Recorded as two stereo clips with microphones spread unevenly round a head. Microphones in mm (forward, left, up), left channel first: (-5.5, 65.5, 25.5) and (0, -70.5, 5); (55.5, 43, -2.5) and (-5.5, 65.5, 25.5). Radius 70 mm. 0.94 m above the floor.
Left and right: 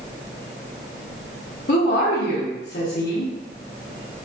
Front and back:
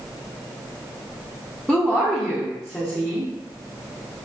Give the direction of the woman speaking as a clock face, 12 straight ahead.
10 o'clock.